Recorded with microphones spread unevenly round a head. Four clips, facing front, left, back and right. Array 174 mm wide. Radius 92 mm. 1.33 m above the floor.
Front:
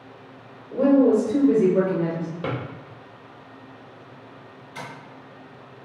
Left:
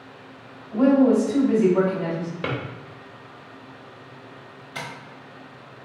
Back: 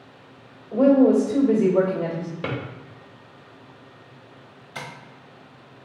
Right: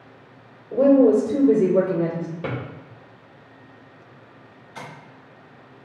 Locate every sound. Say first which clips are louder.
0.7 s a woman speaking: right 2 dB, back 1 dB; 110° right, 1.8 m
2.4 s a drawer: left 2 dB, front 1 dB; 150° right, 1.1 m
4.8 s tapping: left 3 dB, back 1 dB; 165° left, 1.2 m